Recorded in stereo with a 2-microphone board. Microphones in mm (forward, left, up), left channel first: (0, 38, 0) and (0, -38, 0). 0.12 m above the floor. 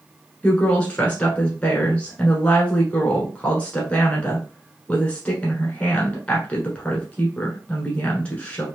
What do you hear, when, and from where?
0.4 s a woman speaking: 15° left (ahead or behind), 1.2 m